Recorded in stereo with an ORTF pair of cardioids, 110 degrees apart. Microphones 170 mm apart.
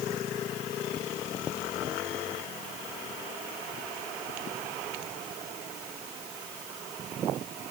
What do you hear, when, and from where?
Only background noise.